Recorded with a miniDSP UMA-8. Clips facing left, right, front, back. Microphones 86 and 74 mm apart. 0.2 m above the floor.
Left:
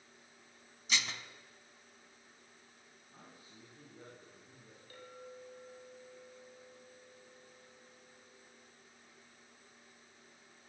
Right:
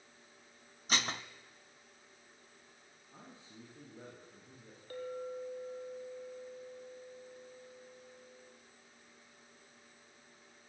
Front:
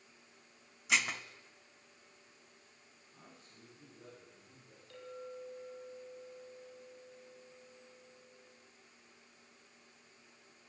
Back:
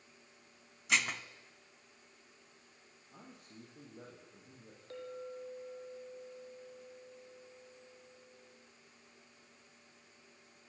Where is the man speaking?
155° right, 9.5 m.